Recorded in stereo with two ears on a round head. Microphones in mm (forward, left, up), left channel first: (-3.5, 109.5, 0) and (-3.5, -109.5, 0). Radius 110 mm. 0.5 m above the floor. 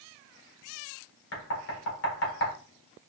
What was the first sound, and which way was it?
Knocking, 60° left (ahead or behind).